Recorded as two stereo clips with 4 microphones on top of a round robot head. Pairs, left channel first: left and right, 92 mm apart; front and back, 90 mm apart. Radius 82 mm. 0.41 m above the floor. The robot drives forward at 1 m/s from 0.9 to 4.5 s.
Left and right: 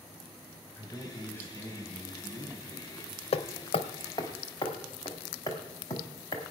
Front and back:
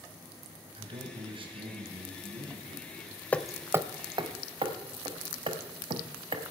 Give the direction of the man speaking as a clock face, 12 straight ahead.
7 o'clock.